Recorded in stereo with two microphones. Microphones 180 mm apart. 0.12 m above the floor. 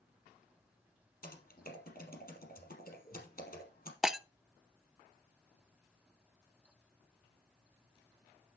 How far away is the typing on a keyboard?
About 4 m.